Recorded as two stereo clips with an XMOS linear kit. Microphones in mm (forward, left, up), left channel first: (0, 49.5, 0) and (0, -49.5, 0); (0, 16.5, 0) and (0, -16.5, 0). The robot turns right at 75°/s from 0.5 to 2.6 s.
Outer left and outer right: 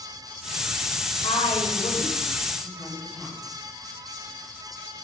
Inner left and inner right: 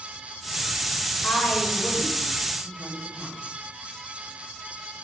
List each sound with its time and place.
1.2 s a woman speaking: 75° left (ahead or behind), 3.5 m; by 3.4 s centre (ahead or behind), 3.5 m